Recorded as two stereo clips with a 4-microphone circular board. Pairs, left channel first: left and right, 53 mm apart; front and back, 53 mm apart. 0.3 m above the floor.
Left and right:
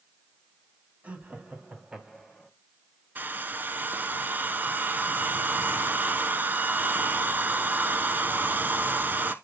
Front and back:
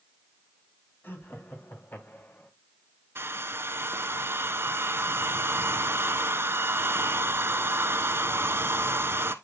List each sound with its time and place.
1.0 s laughter: 35° right, 2.5 m; by 2.5 s 5° right, 1.9 m
3.1 s a hair dryer: 140° right, 0.9 m